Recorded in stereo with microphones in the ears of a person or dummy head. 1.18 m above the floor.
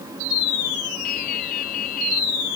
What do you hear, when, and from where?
1.0 s dripping: 55° left (ahead or behind)